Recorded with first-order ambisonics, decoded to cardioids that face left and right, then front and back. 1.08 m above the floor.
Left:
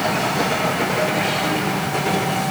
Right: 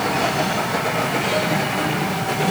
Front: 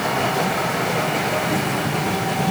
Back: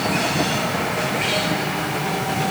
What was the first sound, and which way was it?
Only background noise.